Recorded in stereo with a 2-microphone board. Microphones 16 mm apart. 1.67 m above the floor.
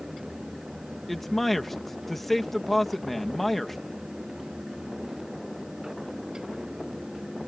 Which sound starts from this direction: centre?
A man speaking, at 1.1 s.